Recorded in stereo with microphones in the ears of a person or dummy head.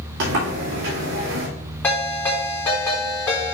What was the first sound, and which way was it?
A sliding door, 65° right (ahead or behind).